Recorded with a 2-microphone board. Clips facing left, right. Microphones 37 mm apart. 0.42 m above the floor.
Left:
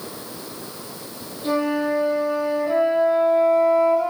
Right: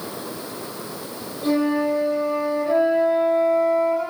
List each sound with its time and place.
1.4 s a flute: 40° right (ahead or behind), 1.3 m